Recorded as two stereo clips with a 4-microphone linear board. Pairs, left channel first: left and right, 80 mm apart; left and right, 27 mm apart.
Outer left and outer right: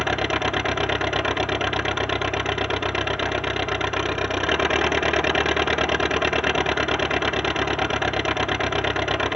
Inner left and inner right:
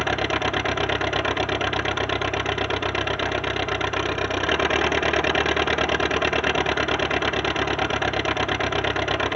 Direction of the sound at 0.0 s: 5° right (ahead or behind).